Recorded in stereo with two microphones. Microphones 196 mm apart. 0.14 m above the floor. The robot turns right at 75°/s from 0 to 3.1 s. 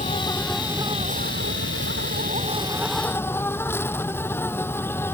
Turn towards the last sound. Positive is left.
turn(degrees=10)